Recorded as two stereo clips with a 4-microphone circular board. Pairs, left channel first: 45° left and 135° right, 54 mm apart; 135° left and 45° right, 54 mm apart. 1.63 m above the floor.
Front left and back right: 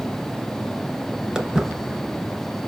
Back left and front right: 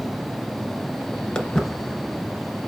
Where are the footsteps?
175° left, 1.6 m.